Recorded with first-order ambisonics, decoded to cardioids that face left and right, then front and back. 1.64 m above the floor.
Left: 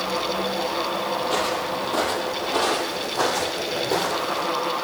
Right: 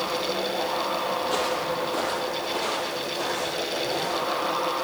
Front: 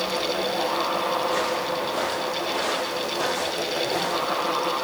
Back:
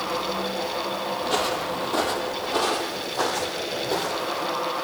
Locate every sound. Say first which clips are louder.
1.2 s footsteps: left 2 dB, front 1 dB; 170° left, 2 m; by 4.5 s 110° left, 3.5 m